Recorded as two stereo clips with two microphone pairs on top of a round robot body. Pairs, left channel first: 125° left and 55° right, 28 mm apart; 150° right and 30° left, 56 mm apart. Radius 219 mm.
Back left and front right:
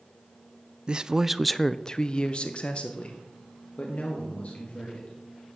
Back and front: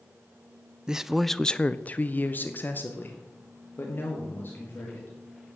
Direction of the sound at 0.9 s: 40° right.